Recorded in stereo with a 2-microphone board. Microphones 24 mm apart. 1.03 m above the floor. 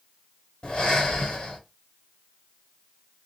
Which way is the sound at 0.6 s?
45° left (ahead or behind).